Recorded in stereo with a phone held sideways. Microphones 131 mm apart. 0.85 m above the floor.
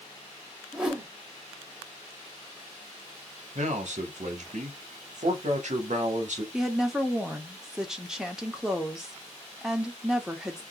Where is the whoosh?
5° right (ahead or behind), 0.9 m.